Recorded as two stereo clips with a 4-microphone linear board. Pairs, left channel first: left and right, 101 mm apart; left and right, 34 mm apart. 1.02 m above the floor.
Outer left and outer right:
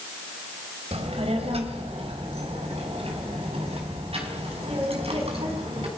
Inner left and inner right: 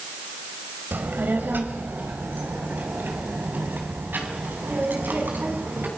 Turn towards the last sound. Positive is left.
turn(degrees=-75)  # may be behind; listen again after turning